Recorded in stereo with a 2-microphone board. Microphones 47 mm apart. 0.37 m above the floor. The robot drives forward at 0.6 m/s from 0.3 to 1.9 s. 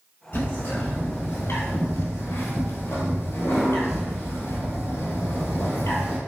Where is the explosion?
No explosion in this recording.